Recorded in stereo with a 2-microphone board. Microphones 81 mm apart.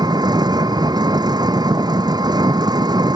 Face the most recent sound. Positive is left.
turn(degrees=-55)  # may be behind; listen again after turning